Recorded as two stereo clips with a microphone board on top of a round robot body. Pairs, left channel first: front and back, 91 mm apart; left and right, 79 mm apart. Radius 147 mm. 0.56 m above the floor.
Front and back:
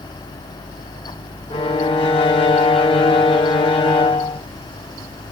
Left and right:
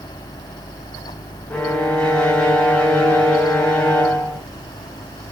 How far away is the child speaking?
No child speaking in this recording.